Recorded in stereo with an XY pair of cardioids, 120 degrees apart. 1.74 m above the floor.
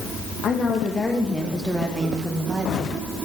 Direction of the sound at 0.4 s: 45° left.